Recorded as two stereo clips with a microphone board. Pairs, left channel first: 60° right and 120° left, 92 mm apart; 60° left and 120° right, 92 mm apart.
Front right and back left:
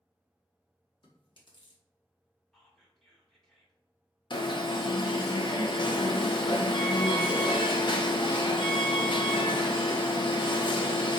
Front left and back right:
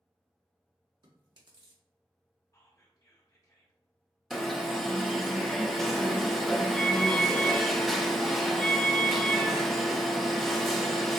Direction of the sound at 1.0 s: 90° right.